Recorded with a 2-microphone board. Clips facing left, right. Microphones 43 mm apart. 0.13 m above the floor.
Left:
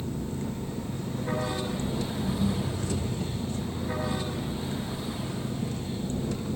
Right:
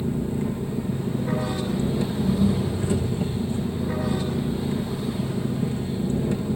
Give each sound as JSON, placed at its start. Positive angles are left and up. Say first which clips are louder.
{"t": 0.0, "sound": "an engine running", "louder": "right 7 dB", "side_deg": -20, "distance_m": 3.5}